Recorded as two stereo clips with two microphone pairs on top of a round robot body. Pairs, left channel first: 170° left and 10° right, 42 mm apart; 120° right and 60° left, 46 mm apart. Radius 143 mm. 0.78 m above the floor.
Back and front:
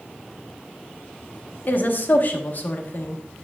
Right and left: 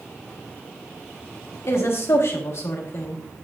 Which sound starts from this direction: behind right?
A woman speaking, at 1.7 s.